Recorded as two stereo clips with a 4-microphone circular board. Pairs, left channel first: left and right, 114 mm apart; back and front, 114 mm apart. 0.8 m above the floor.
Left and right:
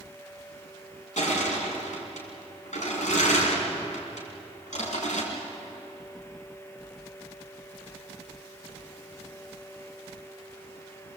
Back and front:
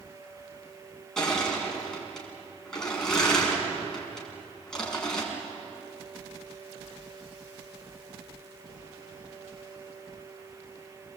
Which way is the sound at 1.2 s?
95° left.